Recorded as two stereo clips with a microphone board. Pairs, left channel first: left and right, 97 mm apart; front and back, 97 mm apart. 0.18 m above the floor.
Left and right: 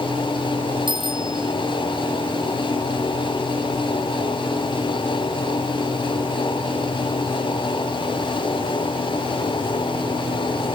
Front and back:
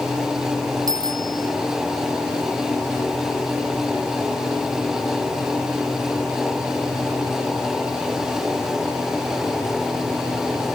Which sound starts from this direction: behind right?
A bicycle bell, at 0.9 s.